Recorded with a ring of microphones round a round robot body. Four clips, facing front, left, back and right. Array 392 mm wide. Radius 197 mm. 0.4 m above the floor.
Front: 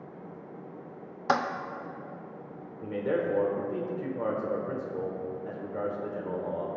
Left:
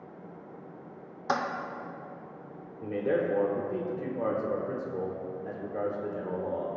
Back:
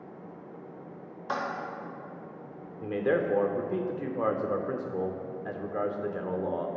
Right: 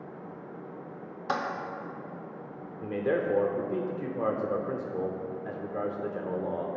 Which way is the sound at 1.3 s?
5° left.